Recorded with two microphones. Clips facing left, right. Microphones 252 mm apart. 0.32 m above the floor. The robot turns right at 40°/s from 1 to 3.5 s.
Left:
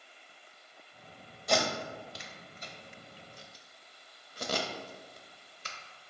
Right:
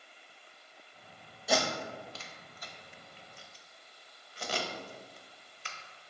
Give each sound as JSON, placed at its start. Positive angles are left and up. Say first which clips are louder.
{"t": 1.5, "sound": "tape being pulled", "louder": "even", "side_deg": -5, "distance_m": 0.6}